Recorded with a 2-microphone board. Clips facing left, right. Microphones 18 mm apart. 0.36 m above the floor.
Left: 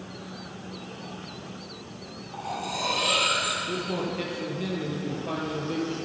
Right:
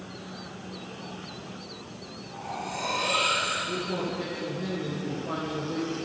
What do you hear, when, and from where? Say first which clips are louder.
2.3 s cutlery clinking: left 3 dB; 55° left (ahead or behind), 6 m
3.7 s a man speaking: left 1 dB; 50° left (ahead or behind), 8.5 m